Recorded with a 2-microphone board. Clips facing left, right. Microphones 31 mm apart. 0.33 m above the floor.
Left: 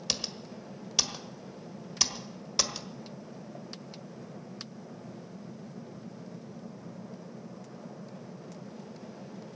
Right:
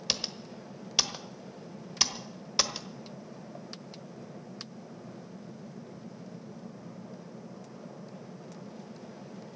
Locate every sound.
0.1 s typing on a keyboard: 15° right (ahead or behind), 1.2 m